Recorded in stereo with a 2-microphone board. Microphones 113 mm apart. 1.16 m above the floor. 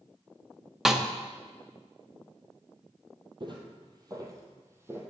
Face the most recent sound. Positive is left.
turn(degrees=-20)  # may be behind; listen again after turning